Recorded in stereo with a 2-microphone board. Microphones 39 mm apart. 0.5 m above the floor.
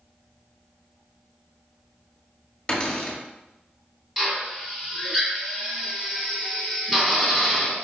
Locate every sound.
2.7 s a cupboard door: 20° left (ahead or behind), 1.8 m
4.2 s a drill: 15° right (ahead or behind), 2.5 m